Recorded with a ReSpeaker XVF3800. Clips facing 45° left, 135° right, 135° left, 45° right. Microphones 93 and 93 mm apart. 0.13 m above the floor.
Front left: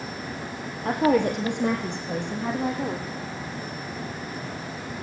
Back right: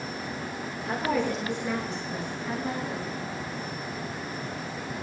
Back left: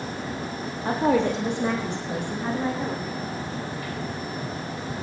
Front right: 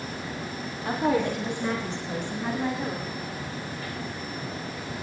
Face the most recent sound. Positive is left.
turn(degrees=55)